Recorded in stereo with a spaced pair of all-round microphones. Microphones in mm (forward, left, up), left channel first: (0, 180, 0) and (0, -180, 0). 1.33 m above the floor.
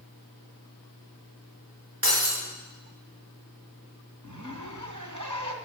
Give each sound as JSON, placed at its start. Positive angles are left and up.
{"t": 2.0, "sound": "breaking glass", "side_deg": -80, "distance_m": 5.5}
{"t": 4.2, "sound": "a zipper", "side_deg": -55, "distance_m": 2.0}